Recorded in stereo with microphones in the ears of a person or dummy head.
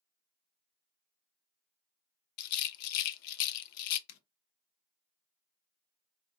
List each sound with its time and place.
2.4 s a rattle: 60° left (ahead or behind), 0.5 m
4.1 s a zipper: 60° left (ahead or behind), 0.7 m